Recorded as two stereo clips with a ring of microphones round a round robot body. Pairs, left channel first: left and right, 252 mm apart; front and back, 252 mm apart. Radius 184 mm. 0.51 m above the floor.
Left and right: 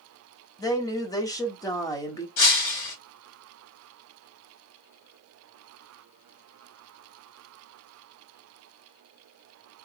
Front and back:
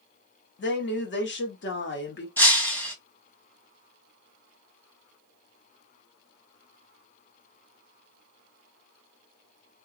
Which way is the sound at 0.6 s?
20° left.